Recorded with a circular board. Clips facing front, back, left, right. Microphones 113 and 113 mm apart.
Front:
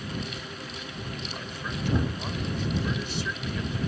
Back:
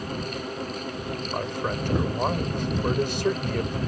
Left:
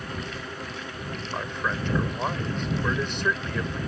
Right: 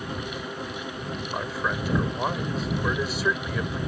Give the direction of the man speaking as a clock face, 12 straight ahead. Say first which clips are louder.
Back 11 dB, right 1 dB; 6 o'clock.